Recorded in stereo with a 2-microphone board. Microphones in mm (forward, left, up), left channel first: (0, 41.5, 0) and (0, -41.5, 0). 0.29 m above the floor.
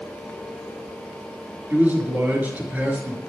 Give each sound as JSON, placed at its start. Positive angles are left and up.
{"t": 1.7, "sound": "a man speaking", "side_deg": -20, "distance_m": 5.5}